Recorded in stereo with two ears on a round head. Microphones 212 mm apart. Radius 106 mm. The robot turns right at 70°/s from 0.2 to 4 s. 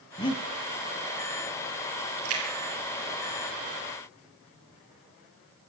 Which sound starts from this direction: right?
A splash, at 2.2 s.